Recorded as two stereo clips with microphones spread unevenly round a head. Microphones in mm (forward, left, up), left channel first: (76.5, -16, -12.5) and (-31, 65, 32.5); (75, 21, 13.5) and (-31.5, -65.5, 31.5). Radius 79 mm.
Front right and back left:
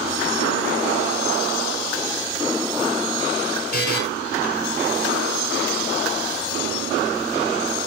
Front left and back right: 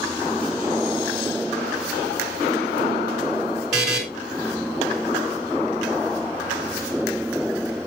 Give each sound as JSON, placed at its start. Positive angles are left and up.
{"t": 3.7, "sound": "a buzzer", "azimuth_deg": -55, "distance_m": 3.5}